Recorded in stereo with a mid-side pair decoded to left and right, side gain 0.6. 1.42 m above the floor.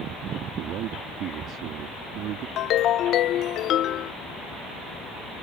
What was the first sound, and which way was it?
A man speaking, 65° right.